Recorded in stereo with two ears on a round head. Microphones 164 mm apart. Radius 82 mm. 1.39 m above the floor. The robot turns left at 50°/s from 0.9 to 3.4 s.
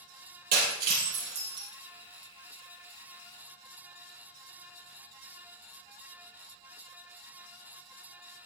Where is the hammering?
No hammering in this recording.